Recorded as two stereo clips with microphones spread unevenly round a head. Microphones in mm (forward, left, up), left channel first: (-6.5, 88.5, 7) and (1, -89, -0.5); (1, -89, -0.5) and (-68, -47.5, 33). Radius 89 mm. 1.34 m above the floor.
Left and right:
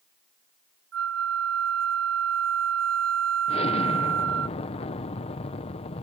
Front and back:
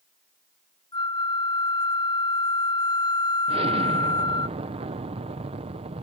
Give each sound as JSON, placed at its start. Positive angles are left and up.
{"t": 0.9, "sound": "a flute", "azimuth_deg": -70}
{"t": 3.5, "sound": "an explosion", "azimuth_deg": 150}